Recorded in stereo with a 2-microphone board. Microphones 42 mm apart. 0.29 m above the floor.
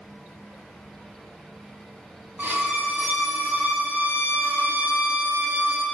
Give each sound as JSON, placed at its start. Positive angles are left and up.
{"t": 2.4, "sound": "a violin", "side_deg": -45, "distance_m": 0.7}